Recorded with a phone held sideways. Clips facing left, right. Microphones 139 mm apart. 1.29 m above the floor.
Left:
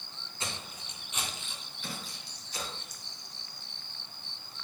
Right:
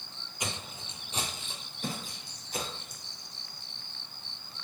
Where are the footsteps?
15° right (ahead or behind), 1.6 m; by 3.0 s 60° right (ahead or behind), 3 m.